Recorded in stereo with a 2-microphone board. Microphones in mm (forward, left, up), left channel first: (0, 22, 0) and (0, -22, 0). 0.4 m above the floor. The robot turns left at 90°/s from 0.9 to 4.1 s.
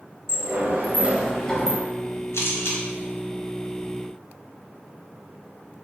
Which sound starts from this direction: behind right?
A sliding door, at 0.3 s.